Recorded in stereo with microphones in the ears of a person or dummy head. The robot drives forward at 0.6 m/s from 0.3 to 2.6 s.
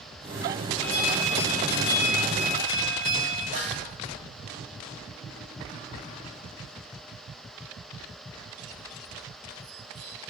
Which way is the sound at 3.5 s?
55° right (ahead or behind).